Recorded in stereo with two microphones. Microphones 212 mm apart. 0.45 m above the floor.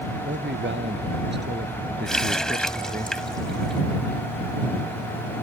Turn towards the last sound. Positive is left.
turn(degrees=5)  # may be behind; listen again after turning